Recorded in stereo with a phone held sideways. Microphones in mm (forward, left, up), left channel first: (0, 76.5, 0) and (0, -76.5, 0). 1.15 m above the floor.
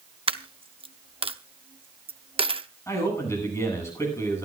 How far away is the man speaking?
About 9 m.